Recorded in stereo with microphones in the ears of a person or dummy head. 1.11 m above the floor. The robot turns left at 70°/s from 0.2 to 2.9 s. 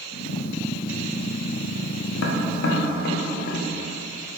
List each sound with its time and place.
2.2 s tapping: 70° left (ahead or behind), 0.6 m; by 3.7 s 50° left (ahead or behind), 0.6 m